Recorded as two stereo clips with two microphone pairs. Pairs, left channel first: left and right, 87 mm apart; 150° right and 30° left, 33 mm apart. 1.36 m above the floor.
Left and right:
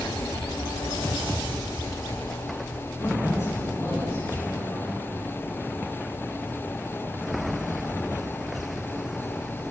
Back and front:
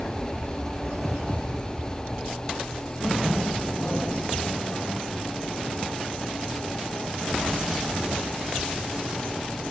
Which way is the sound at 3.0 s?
145° left.